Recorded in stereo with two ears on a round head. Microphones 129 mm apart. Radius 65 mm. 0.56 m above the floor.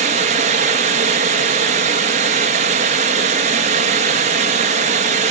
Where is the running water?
45° right (ahead or behind), 1.8 m.